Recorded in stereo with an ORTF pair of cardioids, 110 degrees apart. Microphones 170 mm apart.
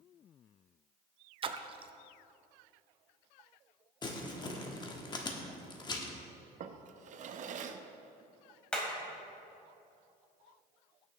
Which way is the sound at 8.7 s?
5° left.